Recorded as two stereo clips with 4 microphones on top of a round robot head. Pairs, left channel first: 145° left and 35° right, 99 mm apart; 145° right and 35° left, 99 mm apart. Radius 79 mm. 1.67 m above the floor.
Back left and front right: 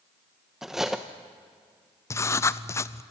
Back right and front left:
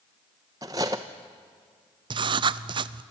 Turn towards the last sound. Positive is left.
turn(degrees=80)